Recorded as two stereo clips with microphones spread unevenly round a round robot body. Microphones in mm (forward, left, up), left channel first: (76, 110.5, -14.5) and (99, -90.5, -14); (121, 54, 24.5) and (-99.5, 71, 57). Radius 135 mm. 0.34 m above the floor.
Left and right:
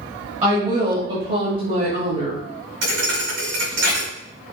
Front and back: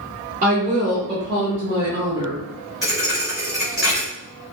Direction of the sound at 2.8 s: 100° right.